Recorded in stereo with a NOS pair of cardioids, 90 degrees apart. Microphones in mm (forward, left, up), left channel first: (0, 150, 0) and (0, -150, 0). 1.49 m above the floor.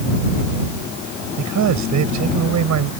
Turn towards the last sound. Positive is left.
turn(degrees=-60)